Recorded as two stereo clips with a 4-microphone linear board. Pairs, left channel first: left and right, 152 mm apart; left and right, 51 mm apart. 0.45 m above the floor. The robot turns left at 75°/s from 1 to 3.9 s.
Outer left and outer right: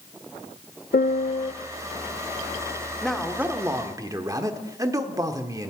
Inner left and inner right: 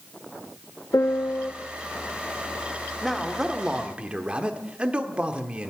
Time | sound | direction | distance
0.9 | a piano | 75° left | 0.5 m
3.0 | a man speaking | 5° left (ahead or behind) | 1.0 m